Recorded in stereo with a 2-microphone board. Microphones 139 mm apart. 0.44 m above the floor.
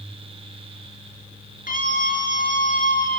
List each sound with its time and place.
1.7 s a scream: 80° left, 5 m